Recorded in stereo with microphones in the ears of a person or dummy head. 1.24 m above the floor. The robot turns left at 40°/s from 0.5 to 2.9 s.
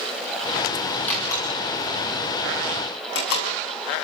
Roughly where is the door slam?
Centre.